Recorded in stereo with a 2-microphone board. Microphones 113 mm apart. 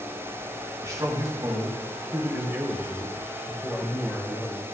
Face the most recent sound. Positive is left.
turn(degrees=10)  # may be behind; listen again after turning